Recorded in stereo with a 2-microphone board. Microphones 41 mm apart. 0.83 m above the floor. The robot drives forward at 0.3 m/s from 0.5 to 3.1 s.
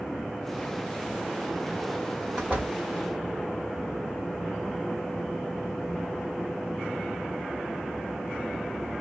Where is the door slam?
30° right (ahead or behind), 2.5 m.